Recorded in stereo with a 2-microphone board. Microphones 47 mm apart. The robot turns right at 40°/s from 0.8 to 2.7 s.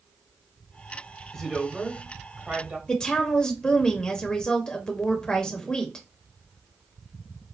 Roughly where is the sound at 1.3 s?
Behind.